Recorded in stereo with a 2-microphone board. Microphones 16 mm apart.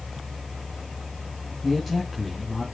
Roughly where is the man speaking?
Centre.